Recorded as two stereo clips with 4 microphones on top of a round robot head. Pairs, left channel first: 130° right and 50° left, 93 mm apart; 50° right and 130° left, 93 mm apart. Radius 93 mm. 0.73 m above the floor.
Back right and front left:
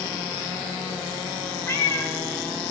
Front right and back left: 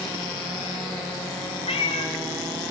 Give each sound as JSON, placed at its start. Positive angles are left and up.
{"t": 1.7, "sound": "a cat meowing", "azimuth_deg": -65, "distance_m": 1.7}